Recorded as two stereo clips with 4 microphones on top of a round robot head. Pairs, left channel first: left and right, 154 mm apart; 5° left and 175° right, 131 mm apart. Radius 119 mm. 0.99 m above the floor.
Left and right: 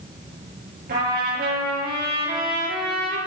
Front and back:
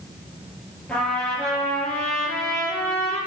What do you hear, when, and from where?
0.9 s a trumpet: 80° right, 6.5 m